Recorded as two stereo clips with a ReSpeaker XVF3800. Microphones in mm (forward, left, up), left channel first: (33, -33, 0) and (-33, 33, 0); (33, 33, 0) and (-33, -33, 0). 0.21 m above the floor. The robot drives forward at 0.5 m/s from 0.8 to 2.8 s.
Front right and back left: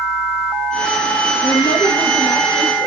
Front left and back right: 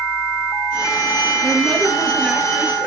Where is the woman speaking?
40° right, 3 m; by 2.9 s 55° right, 2.5 m.